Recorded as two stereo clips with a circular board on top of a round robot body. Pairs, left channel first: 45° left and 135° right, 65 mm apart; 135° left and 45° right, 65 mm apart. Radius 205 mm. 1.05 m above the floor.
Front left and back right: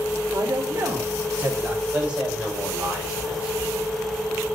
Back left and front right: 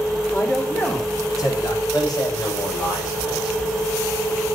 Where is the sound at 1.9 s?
155° left, 7.5 m.